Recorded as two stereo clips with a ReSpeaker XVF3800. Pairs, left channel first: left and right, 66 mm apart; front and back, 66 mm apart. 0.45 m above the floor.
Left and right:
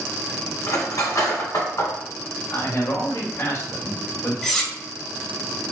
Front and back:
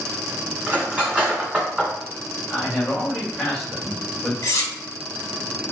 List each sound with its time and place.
0.7 s cutlery clinking: 110° left, 1.7 m
2.5 s a man speaking: 90° left, 1.6 m
4.4 s cutlery clinking: 5° left, 0.9 m